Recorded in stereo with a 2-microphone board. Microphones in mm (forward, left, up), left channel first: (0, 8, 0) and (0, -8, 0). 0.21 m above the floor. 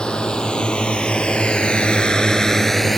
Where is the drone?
55° left (ahead or behind); by 3.0 s 15° left (ahead or behind).